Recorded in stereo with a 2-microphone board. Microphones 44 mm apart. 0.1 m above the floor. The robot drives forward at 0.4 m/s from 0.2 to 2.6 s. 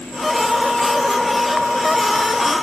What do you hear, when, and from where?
Only background noise.